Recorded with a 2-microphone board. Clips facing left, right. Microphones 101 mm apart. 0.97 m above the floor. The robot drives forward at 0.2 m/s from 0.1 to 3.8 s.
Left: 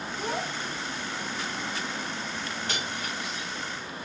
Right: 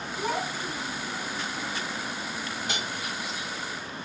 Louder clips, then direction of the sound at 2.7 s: Even; 15° right (ahead or behind).